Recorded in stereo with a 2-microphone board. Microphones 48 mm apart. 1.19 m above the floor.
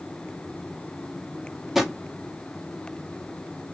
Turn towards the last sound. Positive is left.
turn(degrees=-5)  # may be behind; listen again after turning